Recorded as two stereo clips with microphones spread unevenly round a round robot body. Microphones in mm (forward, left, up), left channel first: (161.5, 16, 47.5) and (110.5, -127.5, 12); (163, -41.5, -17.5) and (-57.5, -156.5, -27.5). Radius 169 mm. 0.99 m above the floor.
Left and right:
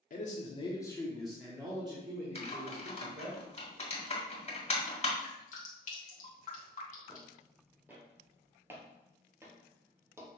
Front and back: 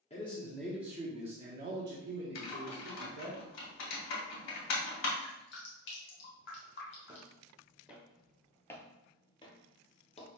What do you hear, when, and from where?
0.1 s a man speaking: 90° left, 0.9 m; by 3.4 s 125° right, 1.6 m
2.4 s typing on a keyboard: 30° left, 1.8 m
5.2 s dripping: 65° left, 1.1 m
7.1 s footsteps: 150° left, 1.1 m; by 10.3 s 25° right, 1.4 m